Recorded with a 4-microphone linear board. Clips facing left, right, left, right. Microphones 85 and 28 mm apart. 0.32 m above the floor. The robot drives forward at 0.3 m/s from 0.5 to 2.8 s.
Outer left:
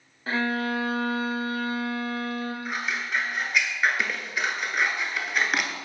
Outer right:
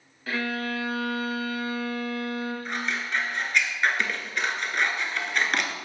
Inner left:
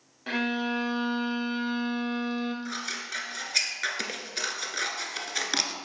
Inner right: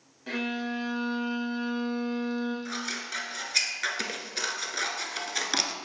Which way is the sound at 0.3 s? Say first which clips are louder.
Outer left 3 dB, inner left 3 dB; 35° left (ahead or behind).